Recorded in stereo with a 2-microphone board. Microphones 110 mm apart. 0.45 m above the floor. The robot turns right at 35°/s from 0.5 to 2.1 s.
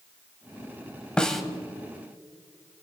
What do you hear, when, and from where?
1.2 s a snare drum: 10° left (ahead or behind), 1.0 m; by 1.4 s centre (ahead or behind), 1.0 m